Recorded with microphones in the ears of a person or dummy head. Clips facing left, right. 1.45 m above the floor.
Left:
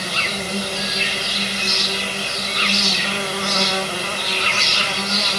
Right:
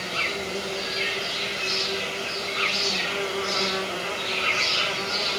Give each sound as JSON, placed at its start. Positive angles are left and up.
{"t": 0.0, "sound": "an insect", "side_deg": 55, "distance_m": 0.8}